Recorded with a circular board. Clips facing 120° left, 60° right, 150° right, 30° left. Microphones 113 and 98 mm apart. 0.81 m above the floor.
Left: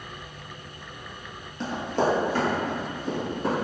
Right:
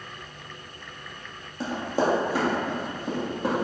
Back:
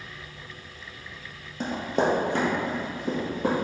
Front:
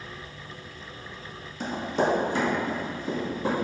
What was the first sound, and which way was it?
Running footsteps, 140° right.